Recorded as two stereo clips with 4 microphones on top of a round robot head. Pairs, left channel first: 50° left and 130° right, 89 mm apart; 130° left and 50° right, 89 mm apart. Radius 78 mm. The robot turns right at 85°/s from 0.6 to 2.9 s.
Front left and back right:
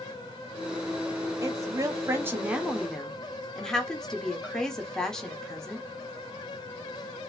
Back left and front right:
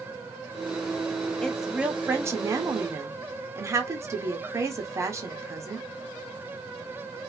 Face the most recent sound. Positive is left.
turn(degrees=-25)